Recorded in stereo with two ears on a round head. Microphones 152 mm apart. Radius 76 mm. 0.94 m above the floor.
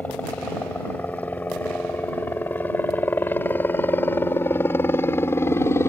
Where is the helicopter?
10° left (ahead or behind); by 5.9 s 15° left (ahead or behind).